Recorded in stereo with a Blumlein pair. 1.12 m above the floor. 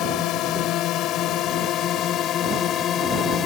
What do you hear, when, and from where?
0.0 s a drone: 35° left; by 3.5 s 30° left